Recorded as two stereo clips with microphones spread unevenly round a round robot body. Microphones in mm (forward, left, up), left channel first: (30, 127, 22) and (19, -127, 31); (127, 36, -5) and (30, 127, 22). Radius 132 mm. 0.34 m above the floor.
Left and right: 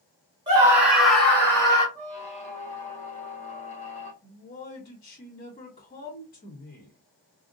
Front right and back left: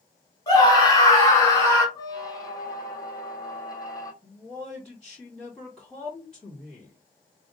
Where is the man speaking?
35° left, 2.5 m.